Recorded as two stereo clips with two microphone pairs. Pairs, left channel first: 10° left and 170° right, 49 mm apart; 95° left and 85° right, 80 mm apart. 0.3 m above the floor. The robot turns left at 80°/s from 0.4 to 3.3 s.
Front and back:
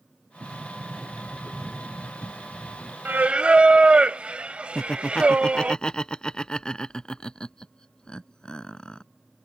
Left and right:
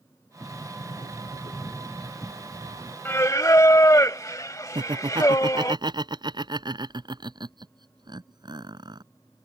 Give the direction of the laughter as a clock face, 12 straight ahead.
2 o'clock.